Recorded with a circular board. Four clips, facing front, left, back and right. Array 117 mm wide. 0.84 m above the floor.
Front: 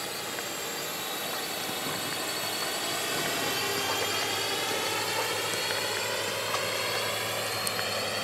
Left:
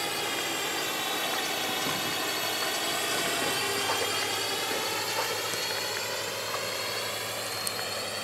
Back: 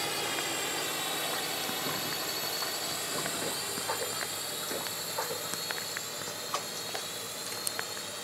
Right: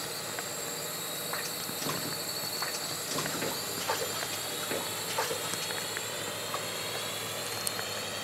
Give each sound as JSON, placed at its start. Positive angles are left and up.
{"t": 0.0, "sound": "a drone", "azimuth_deg": 110}